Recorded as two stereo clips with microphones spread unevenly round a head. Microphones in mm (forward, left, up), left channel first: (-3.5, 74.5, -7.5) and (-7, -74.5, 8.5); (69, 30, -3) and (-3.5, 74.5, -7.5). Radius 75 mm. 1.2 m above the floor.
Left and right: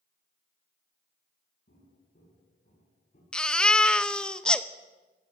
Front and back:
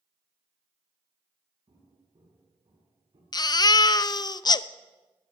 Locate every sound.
1.7 s footsteps: 125° left, 9.5 m; by 3.2 s 135° left, 9.5 m
3.3 s a baby crying: 5° left, 0.7 m